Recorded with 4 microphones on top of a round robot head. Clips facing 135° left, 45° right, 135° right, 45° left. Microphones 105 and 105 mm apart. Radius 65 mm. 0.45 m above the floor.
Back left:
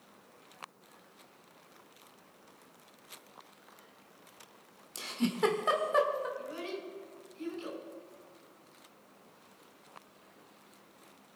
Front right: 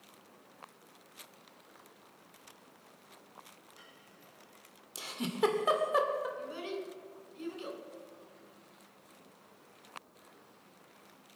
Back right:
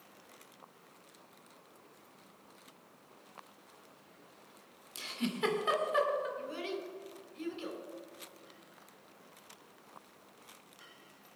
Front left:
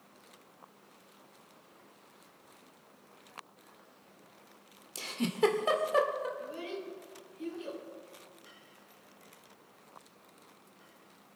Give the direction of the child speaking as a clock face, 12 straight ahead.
4 o'clock.